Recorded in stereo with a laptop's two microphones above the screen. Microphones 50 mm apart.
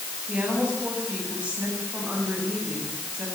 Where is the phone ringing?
I don't hear a phone ringing.